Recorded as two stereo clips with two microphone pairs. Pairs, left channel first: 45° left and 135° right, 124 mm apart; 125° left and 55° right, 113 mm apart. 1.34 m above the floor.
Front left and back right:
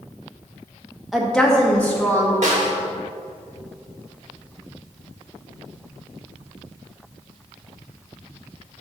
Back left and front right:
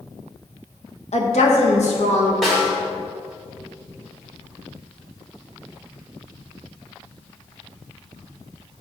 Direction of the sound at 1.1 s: 140° left.